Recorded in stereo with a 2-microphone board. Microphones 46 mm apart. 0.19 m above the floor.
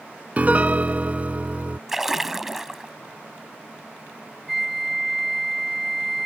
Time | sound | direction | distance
0.4 | a piano | 35° right (ahead or behind) | ?
1.9 | a splash | 5° right (ahead or behind) | ?
4.5 | a flute | 5° right (ahead or behind) | ?